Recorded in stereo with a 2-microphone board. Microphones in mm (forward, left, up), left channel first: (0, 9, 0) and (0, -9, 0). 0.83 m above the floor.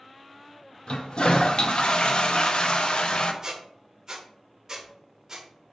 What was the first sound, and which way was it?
A toilet flushing, 60° left (ahead or behind).